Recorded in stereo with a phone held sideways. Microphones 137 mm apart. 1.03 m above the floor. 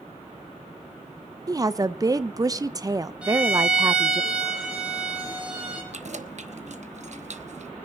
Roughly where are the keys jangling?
Right.